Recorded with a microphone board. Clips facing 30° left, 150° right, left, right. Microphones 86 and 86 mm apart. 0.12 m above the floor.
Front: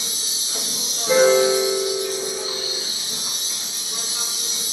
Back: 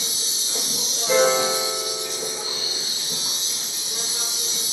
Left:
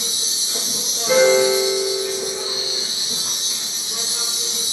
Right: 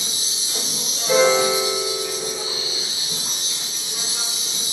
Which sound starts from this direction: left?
A piano, at 1.1 s.